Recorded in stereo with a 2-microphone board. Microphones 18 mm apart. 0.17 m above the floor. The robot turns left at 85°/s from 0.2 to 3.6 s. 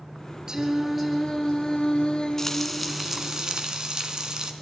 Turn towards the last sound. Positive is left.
turn(degrees=-70)